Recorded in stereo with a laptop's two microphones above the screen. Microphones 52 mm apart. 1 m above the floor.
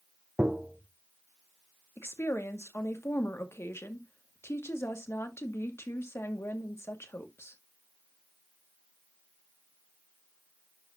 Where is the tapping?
20° right (ahead or behind), 0.7 m.